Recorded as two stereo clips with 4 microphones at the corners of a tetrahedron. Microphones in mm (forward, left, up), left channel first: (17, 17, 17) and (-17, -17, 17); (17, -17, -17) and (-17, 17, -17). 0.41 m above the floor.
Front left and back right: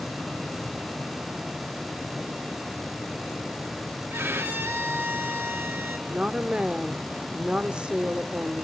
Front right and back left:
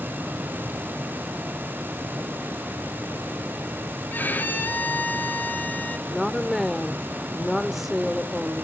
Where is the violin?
95° right, 1.5 m.